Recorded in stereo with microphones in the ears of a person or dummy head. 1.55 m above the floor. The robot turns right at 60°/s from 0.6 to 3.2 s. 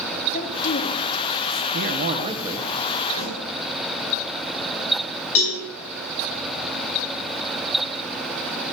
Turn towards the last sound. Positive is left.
turn(degrees=80)